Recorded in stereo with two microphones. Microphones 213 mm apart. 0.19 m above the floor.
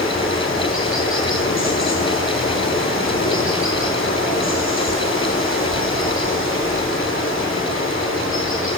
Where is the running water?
75° left (ahead or behind), 4.5 m.